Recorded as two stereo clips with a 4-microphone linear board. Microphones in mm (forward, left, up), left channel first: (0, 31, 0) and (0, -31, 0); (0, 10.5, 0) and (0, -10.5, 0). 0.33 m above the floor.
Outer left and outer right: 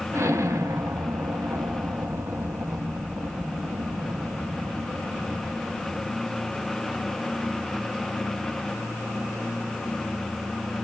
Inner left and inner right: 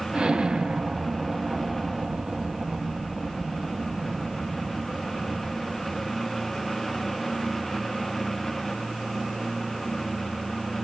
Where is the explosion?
50° right (ahead or behind), 0.7 m.